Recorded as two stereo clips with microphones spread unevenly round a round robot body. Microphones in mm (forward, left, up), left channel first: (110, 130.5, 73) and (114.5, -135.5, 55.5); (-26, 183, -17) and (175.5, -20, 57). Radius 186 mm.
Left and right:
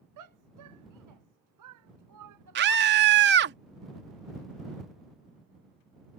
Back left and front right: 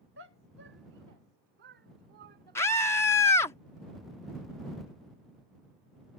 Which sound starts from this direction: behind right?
A scream, at 2.5 s.